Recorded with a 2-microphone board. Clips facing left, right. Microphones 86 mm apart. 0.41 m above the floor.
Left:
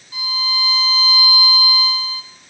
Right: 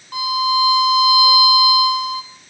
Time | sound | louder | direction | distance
0.1 | a violin | right 8 dB | 55° right (ahead or behind) | 0.7 m